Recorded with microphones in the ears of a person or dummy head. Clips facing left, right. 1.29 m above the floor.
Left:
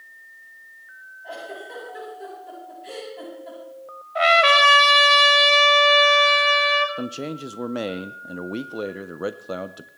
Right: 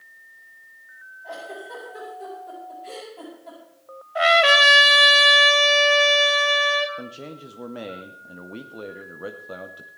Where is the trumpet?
5° right (ahead or behind), 1.0 m.